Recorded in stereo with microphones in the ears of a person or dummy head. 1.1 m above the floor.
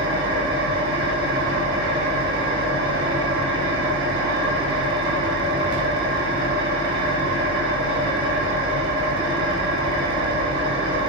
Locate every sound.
0.0 s an engine running: 75° right (ahead or behind), 3.5 m